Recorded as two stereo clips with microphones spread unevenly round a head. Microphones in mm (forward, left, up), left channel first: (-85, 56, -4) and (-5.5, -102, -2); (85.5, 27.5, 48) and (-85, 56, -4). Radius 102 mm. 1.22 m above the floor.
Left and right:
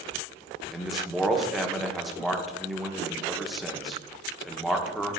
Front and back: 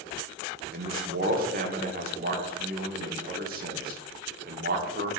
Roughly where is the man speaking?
Behind right.